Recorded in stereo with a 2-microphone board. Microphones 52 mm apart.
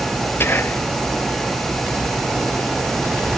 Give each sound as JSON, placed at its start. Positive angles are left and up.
{"t": 0.4, "sound": "whispering", "side_deg": 45, "distance_m": 0.9}